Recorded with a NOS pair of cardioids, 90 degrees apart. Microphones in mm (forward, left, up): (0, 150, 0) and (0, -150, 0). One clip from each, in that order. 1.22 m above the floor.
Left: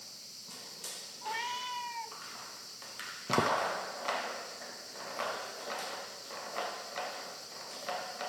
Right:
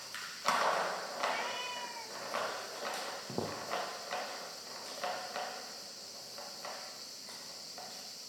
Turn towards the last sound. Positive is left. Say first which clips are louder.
# left 13 dB
turn(degrees=55)